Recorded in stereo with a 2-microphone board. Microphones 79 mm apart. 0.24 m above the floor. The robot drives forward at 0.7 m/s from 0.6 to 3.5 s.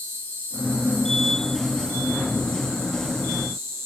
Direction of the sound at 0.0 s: 30° right (ahead or behind).